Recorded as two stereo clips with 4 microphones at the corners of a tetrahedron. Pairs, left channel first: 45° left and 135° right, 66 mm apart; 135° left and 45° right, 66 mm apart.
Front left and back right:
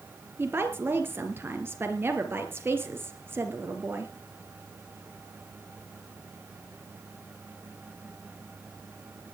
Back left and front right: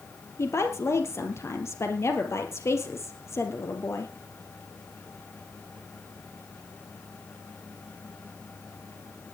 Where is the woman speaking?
175° left, 3.5 m.